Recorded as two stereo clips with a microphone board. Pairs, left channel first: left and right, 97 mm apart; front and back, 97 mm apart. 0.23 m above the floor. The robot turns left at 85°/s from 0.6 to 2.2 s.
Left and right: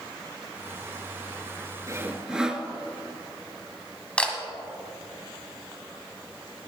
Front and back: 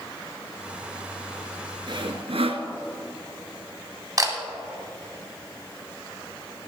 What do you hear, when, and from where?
1.9 s sawing: 145° right, 0.8 m; by 2.6 s 170° right, 0.8 m
4.2 s a camera shutter: 165° left, 1.4 m